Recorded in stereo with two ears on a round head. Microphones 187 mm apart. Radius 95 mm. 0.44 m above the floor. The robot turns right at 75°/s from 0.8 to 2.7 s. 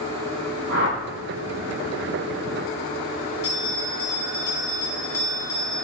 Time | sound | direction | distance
0.7 | a whoosh | 75° right (ahead or behind) | 6.5 m
3.4 | a bell | 75° left (ahead or behind) | 3.5 m